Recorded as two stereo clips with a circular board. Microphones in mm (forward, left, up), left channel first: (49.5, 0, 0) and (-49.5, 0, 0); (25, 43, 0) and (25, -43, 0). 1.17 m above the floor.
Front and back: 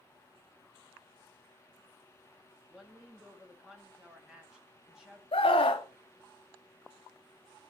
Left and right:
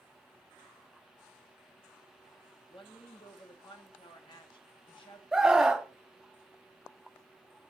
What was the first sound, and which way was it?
A woman speaking, 95° left.